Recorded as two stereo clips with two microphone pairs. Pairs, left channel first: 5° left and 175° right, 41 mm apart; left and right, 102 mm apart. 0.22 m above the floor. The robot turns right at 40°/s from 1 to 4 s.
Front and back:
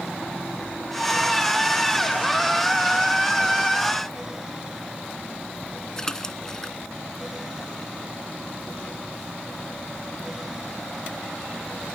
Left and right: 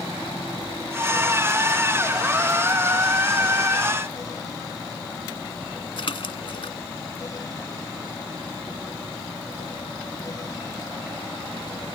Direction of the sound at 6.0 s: 85° left.